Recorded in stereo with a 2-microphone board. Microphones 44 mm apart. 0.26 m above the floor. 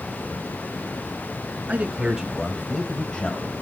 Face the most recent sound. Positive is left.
turn(degrees=25)  # may be behind; listen again after turning